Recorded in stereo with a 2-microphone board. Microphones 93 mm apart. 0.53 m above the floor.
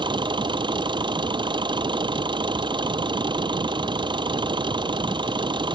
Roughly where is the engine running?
Right.